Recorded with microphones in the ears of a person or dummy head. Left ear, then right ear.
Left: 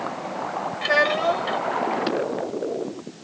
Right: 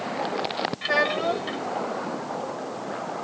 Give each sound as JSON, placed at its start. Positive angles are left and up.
{"t": 0.8, "sound": "a child speaking", "side_deg": 20}